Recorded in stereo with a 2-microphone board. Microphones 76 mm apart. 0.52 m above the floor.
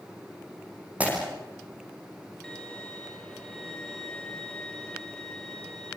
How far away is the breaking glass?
About 8.5 m.